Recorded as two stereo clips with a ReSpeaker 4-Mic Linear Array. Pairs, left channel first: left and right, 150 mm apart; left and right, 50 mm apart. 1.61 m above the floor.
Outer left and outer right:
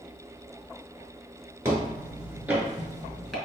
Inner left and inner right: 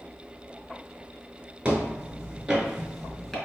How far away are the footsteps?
About 1.6 m.